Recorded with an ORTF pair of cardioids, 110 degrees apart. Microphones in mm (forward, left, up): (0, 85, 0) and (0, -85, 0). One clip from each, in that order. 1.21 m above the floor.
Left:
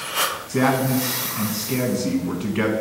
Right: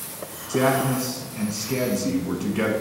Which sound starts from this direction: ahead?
A man speaking, at 0.5 s.